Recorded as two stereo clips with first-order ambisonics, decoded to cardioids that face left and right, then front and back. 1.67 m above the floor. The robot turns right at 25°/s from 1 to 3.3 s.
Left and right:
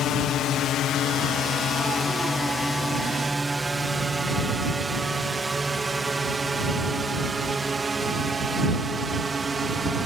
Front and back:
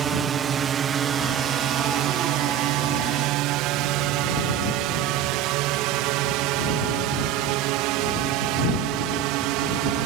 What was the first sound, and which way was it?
A drone, 125° left.